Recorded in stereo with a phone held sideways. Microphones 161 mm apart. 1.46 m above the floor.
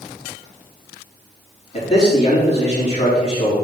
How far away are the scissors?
No scissors in this recording.